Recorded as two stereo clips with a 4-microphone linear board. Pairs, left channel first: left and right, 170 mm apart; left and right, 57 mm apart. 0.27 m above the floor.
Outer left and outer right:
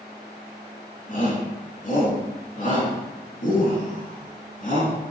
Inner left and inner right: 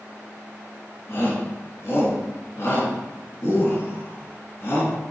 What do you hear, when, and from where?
1.1 s a shout: 55° left (ahead or behind), 3 m